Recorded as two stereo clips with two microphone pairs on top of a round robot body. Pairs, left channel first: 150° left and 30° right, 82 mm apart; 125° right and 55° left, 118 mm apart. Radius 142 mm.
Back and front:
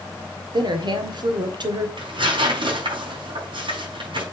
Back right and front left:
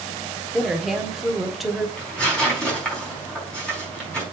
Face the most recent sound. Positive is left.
turn(degrees=-45)